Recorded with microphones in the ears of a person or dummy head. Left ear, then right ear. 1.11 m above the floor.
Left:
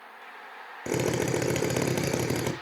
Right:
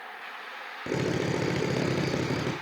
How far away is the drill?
About 1.8 m.